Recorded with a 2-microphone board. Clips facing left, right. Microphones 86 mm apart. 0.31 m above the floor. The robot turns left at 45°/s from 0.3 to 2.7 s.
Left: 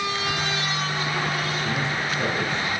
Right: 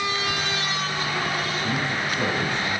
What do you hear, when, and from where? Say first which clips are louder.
1.6 s a man speaking: even; 55° right, 3.5 m; by 2.8 s 100° right, 3.5 m